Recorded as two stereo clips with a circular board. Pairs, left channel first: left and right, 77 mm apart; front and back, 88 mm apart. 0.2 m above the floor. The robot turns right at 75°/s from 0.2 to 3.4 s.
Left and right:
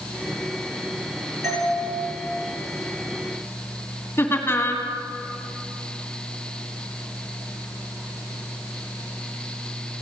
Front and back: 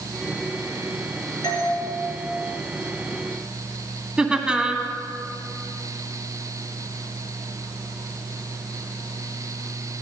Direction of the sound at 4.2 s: 105° left.